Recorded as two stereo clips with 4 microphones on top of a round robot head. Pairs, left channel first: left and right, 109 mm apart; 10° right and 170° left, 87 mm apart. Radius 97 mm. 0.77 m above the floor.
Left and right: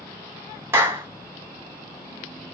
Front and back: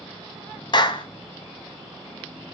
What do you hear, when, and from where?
0.7 s a clap: 25° right, 0.8 m